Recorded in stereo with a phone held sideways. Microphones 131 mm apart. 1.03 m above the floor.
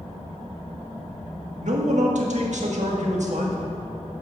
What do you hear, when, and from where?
1.6 s a man speaking: 70° right (ahead or behind), 1.7 m